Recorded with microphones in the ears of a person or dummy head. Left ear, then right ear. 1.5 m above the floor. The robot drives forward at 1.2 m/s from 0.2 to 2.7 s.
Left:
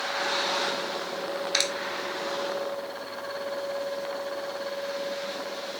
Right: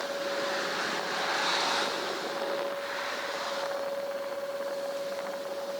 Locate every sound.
1.5 s a clap: 65° left (ahead or behind)